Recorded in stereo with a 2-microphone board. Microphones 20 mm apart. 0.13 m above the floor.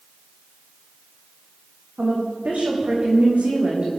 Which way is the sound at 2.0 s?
80° right.